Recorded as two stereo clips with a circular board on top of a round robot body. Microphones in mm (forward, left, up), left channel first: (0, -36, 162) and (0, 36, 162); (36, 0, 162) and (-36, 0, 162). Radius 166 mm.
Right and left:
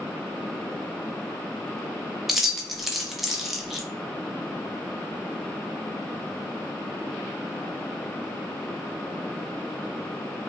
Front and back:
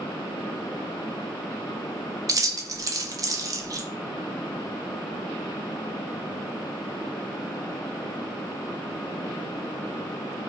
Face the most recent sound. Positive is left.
turn(degrees=175)